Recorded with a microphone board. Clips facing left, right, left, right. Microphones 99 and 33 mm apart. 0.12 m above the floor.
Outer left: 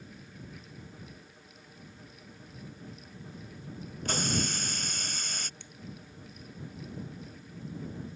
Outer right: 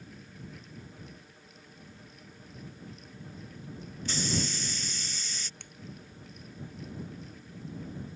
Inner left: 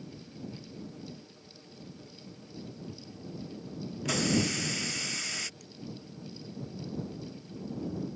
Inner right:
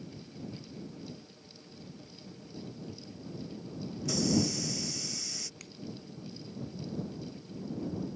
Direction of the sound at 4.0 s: 60° left (ahead or behind).